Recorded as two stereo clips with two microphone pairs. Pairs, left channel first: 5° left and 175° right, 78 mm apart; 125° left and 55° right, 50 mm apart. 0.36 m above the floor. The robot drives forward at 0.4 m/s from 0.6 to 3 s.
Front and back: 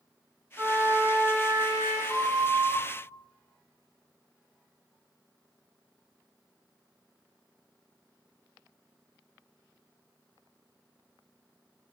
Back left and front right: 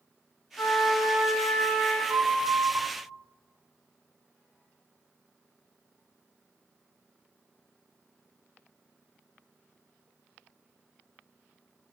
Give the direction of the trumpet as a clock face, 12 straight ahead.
8 o'clock.